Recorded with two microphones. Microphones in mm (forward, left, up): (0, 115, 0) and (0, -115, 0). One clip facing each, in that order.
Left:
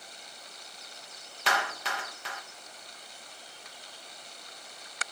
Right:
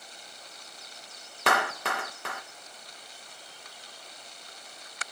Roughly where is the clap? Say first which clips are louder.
Right 5 dB; right.